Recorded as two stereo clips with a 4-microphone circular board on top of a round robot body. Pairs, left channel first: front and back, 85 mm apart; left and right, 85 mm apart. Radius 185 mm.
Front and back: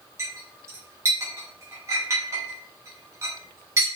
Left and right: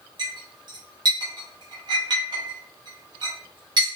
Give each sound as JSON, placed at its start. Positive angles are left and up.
{"t": 0.2, "sound": "a clink", "azimuth_deg": -125, "distance_m": 0.6}